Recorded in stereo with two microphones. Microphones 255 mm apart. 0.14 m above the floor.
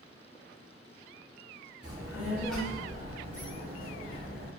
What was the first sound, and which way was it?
A child speaking, 20° right (ahead or behind).